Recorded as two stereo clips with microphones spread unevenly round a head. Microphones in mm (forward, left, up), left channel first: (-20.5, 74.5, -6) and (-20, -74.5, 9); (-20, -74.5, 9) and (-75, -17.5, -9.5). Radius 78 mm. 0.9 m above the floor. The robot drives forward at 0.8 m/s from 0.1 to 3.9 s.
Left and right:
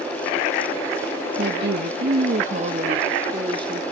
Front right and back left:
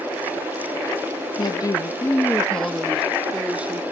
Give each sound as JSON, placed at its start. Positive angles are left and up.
{"t": 1.4, "sound": "a woman speaking", "azimuth_deg": -75, "distance_m": 1.0}